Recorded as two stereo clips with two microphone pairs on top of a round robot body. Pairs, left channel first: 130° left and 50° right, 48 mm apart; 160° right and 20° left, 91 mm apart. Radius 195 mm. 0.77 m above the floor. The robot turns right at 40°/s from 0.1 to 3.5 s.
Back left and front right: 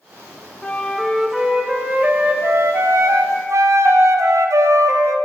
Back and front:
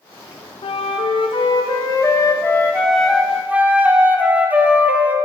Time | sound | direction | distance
0.6 | a flute | 165° right | 0.5 m